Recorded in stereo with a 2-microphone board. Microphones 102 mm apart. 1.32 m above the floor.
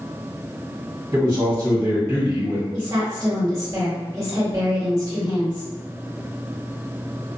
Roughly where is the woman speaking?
Right.